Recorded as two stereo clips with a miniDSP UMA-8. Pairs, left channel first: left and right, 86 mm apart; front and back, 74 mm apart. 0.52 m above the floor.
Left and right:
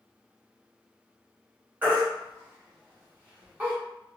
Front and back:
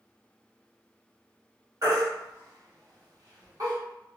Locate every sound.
1.8 s a baby crying: 155° right, 1.1 m